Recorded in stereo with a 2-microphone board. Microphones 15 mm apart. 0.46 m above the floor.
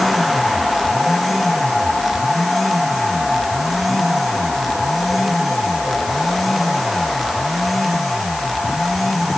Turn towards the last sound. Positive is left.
No sound to turn to.